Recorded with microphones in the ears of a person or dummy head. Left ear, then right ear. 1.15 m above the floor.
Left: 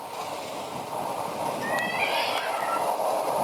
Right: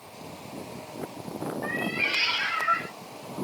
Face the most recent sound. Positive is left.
turn(degrees=-35)  # may be behind; listen again after turning